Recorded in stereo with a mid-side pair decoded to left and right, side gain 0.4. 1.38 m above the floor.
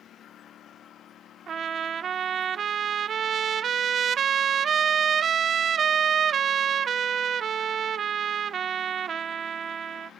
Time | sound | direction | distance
0.0 | a lawn mower | 70° left | ?
1.5 | a trumpet | 60° right | ?